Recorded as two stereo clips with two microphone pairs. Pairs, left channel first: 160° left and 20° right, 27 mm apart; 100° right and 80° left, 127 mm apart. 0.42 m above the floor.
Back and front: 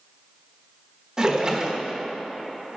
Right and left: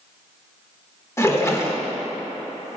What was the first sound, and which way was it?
A splash, 55° right.